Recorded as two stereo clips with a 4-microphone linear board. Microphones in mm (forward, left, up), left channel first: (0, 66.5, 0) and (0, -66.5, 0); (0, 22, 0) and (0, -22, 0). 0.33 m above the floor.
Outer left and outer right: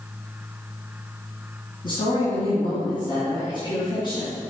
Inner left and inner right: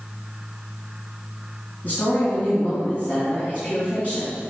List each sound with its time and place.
1.8 s a woman speaking: 40° left (ahead or behind), 2.5 m